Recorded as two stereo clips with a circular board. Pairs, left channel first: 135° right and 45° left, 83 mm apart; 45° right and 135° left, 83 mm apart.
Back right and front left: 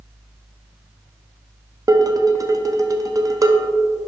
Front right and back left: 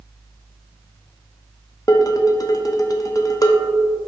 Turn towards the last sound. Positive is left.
turn(degrees=0)